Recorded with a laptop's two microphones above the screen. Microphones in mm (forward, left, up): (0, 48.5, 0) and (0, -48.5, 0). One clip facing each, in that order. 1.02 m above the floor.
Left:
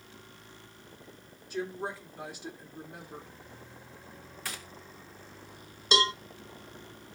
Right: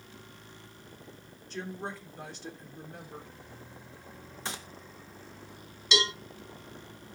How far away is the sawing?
I don't hear sawing.